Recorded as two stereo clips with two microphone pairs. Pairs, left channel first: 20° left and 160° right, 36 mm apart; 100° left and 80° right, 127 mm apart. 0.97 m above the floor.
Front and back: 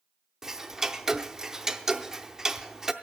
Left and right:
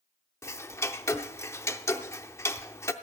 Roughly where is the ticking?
Behind left.